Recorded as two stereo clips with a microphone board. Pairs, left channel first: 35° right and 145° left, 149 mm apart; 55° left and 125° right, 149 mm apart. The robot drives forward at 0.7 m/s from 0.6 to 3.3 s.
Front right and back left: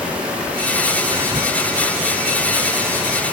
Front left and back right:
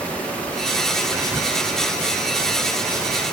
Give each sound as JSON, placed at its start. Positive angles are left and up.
{"t": 1.1, "sound": "whispering", "azimuth_deg": 170, "distance_m": 1.2}